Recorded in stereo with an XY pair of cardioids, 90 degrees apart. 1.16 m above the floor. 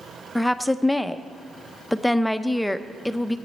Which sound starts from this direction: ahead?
A woman speaking, at 0.3 s.